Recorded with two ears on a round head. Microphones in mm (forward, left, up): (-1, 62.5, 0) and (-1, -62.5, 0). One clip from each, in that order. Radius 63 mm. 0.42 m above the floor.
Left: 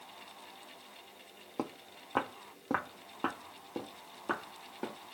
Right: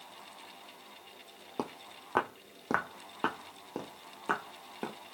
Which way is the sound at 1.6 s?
20° right (ahead or behind).